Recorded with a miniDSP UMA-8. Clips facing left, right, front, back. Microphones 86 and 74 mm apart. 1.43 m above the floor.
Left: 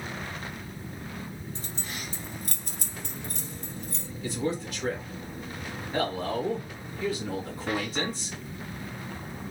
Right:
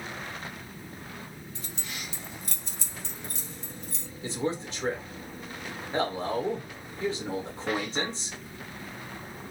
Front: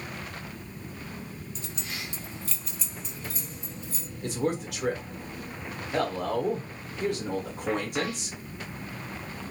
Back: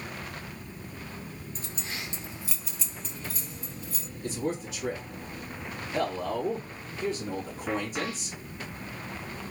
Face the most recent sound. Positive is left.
turn(degrees=-25)